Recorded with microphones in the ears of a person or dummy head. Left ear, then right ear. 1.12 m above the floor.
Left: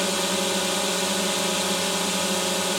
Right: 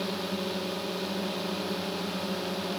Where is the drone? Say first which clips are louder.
Left 8 dB; 45° left (ahead or behind).